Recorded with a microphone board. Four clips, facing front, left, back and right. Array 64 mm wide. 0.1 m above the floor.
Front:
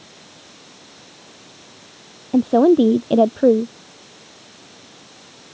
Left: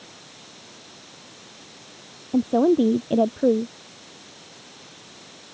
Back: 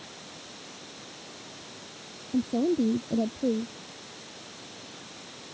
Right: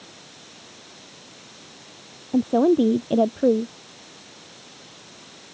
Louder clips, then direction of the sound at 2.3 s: Even, front 13 dB; straight ahead.